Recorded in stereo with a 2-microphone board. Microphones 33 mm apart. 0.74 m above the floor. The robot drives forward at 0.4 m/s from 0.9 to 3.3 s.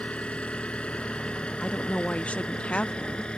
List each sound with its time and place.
0.0 s an engine running: 40° left (ahead or behind); by 3.4 s 35° left (ahead or behind)
1.6 s a woman speaking: 40° left (ahead or behind); by 3.3 s 35° left (ahead or behind)